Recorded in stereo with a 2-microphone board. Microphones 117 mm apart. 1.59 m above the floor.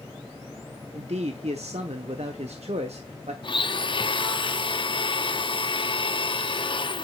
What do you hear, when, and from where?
0.9 s a man speaking: 70° right (ahead or behind), 0.9 m
3.4 s a blender: 45° left (ahead or behind), 0.5 m